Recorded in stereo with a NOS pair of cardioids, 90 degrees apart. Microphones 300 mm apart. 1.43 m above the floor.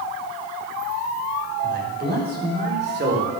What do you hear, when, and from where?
1.6 s a man speaking: 30° right, 5.5 m; by 3.3 s 35° right, 4 m